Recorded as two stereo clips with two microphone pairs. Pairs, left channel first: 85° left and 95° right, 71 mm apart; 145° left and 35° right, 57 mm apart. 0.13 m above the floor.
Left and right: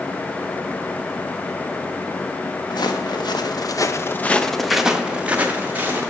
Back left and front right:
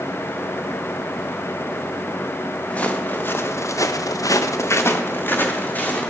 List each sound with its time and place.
2.7 s footsteps: 75° left, 2 m; by 6.1 s 155° right, 3 m